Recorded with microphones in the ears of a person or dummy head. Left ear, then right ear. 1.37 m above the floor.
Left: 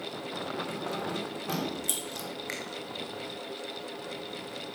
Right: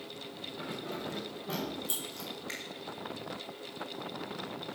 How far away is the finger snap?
About 1.6 m.